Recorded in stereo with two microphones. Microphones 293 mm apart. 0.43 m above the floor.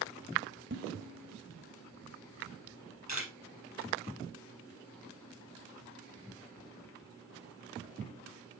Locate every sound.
0.7 s dishes clattering: 40° right (ahead or behind), 1.5 m
3.1 s a camera shutter: 65° left (ahead or behind), 4.5 m